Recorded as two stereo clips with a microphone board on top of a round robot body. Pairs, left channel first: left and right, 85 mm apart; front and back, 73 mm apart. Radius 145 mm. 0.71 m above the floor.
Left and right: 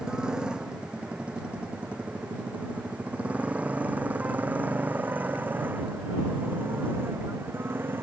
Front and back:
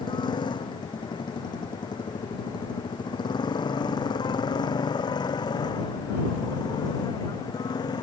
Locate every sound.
0.0 s a motorcycle: 10° right; by 8.0 s 25° right